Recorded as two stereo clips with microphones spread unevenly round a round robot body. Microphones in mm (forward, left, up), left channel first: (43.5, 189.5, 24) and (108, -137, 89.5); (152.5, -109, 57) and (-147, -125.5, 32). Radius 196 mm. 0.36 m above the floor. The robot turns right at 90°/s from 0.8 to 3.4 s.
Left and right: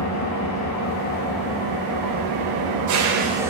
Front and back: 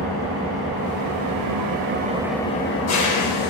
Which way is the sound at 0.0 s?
135° left.